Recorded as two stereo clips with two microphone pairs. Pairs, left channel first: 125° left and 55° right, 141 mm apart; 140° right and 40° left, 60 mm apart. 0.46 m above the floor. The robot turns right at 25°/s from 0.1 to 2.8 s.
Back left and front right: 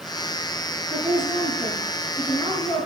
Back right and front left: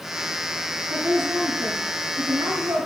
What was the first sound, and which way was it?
A woman speaking, 15° left.